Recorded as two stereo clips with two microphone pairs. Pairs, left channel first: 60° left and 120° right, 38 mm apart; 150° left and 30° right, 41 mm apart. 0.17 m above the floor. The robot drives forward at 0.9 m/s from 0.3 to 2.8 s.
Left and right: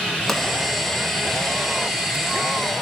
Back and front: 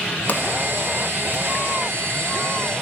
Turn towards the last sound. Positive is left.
turn(degrees=170)